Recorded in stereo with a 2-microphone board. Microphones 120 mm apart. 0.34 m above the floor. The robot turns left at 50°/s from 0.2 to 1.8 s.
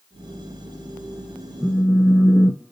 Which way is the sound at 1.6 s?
10° right (ahead or behind).